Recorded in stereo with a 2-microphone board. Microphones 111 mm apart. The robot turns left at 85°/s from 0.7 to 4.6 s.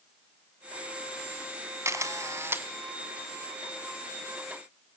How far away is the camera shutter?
About 1.6 m.